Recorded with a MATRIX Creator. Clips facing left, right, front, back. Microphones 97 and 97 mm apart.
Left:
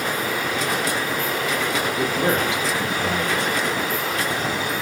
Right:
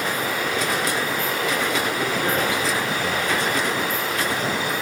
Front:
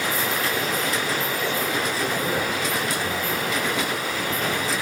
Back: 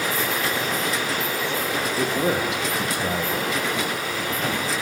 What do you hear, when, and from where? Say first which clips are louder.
2.0 s a man speaking: left 2 dB, back 2 dB; 160° left, 7 m